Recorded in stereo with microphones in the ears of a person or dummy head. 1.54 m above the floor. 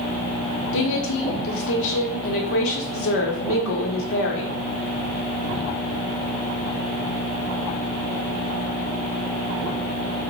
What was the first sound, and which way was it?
A woman speaking, 70° left (ahead or behind).